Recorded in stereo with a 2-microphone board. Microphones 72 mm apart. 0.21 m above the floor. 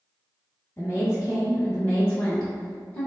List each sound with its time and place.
0.8 s a woman speaking: 25° left (ahead or behind), 1.7 m; by 3.1 s 5° left (ahead or behind), 1.8 m